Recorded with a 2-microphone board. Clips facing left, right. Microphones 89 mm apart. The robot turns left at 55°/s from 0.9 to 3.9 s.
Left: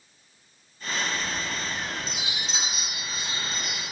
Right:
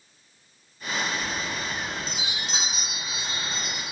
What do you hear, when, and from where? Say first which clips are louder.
1.1 s a chime: right 1 dB; straight ahead, 3 m; by 3.8 s 145° right, 3 m